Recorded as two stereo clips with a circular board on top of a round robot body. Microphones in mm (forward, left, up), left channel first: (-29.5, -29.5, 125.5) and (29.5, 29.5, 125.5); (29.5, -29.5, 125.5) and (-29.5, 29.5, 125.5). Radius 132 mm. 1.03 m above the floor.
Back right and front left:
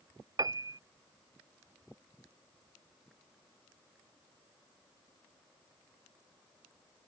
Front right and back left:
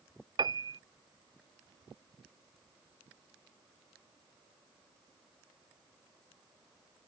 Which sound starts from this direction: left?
A piano, at 0.4 s.